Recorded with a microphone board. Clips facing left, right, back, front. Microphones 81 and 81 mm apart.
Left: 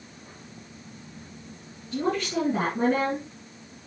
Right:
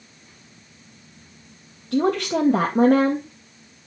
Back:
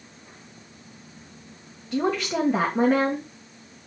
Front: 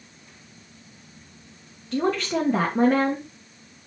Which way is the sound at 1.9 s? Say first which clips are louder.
Right 6 dB, front 1 dB; 90° right.